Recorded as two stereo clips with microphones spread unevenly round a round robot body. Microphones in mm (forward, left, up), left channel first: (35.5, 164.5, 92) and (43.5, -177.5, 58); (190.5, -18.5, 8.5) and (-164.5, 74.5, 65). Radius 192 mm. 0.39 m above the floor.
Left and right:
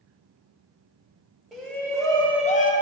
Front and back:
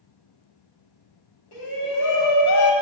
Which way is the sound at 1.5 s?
Straight ahead.